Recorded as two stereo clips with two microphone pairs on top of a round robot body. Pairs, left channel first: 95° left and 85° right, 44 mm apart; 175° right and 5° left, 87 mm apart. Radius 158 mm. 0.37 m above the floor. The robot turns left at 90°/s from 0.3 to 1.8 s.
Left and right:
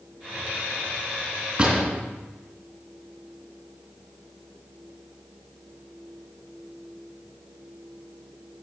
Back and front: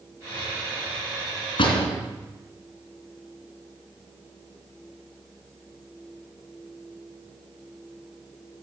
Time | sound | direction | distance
1.6 | a door slam | 155° right | 3 m